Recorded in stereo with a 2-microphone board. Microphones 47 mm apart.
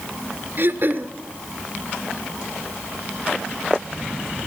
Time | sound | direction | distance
0.6 | throat clearing | 50° right (ahead or behind) | 1.2 m